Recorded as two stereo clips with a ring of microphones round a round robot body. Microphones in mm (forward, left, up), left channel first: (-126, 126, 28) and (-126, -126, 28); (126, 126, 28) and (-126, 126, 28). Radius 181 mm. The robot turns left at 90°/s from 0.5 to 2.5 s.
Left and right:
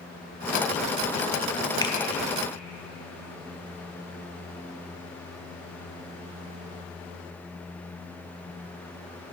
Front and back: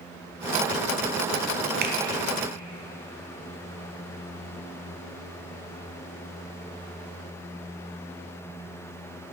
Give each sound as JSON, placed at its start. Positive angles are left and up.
{"t": 1.8, "sound": "a finger snap", "azimuth_deg": 160, "distance_m": 0.9}